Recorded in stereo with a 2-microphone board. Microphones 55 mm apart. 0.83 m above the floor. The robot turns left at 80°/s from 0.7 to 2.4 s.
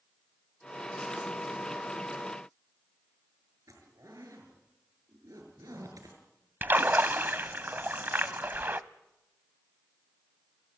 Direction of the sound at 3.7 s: 85° right.